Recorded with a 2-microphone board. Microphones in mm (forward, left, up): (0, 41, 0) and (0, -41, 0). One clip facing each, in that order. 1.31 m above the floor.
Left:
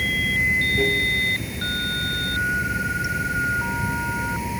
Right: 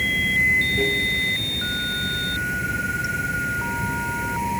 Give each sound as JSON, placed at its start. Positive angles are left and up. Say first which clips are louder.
{"t": 0.0, "sound": "running water", "louder": "right 1 dB", "side_deg": 5}